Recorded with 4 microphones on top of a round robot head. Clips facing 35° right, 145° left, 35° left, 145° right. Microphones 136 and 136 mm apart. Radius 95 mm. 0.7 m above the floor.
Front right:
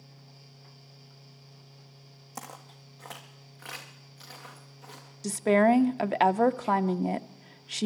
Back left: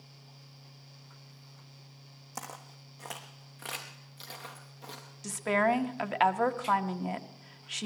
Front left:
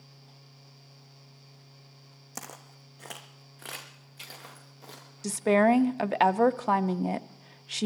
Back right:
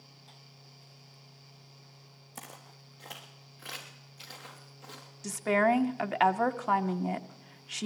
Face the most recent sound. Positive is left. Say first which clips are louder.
# front right 6 dB, front left 4 dB
turn(degrees=-5)